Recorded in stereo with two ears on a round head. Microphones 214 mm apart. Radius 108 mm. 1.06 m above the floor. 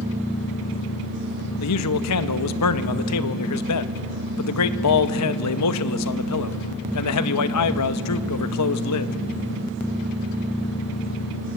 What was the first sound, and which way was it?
A man speaking, 75° left (ahead or behind).